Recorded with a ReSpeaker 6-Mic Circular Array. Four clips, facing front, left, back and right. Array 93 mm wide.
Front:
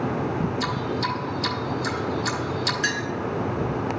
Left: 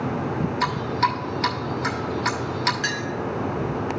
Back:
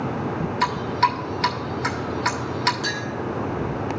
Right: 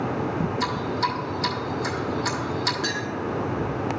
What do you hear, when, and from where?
0.6 s dripping: 155° left, 1.5 m
2.8 s a clink: 30° left, 1.8 m